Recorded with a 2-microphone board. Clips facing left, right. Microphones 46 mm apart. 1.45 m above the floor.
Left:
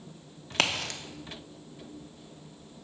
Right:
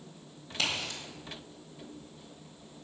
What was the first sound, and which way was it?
A crack, 70° left (ahead or behind).